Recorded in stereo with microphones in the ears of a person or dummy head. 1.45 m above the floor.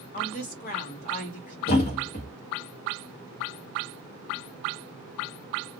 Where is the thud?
40° left (ahead or behind), 1.1 m.